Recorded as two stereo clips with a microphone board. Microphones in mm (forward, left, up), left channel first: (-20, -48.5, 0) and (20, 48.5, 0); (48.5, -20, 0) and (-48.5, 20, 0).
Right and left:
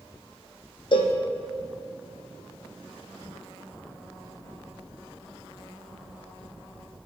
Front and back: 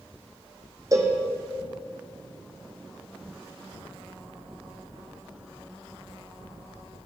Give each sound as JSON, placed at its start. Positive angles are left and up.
{"t": 0.9, "sound": "a cowbell", "azimuth_deg": -145, "distance_m": 0.8}